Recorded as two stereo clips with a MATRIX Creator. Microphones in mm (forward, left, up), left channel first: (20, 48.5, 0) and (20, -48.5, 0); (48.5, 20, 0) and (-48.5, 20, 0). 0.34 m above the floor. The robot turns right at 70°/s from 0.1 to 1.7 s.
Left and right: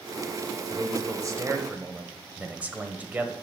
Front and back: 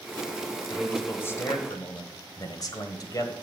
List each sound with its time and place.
0.7 s a man speaking: 95° right, 1.3 m; by 3.3 s 25° right, 1.3 m